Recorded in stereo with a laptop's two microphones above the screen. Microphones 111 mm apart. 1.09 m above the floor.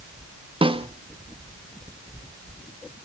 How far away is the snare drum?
About 0.9 m.